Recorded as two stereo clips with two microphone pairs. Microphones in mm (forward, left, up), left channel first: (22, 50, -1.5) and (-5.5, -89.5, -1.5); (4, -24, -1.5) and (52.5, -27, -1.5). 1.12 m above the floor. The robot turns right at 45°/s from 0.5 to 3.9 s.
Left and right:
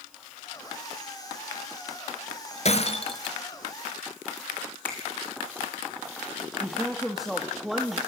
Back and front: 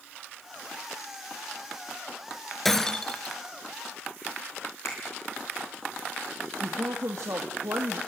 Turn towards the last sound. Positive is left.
turn(degrees=-15)